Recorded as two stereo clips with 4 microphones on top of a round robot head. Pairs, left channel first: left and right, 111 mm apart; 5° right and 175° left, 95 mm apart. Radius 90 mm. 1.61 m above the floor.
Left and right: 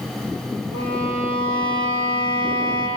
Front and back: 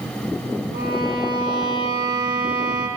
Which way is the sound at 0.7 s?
40° right.